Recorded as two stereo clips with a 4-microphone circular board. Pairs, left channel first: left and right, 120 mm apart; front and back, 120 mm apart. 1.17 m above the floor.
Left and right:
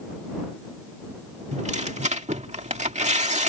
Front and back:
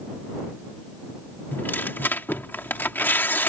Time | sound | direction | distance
1.5 | tearing paper | 75° right | ?